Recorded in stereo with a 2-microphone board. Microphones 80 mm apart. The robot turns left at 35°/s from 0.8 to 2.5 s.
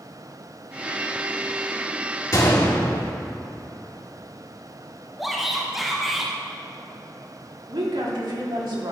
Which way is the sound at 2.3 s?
45° left (ahead or behind).